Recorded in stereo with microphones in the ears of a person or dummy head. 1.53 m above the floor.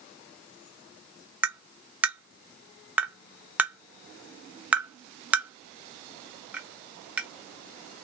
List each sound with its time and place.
1.4 s tapping: 10° right (ahead or behind), 0.6 m